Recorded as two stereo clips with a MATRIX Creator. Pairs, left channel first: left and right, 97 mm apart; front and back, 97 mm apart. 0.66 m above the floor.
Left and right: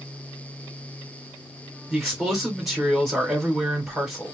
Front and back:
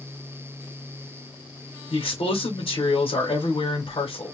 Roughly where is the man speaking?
Ahead.